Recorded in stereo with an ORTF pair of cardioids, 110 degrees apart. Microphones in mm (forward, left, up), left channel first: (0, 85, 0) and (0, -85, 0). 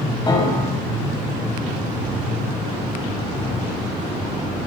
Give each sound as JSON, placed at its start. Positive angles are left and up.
{"t": 0.3, "sound": "a piano", "azimuth_deg": 25, "distance_m": 6.5}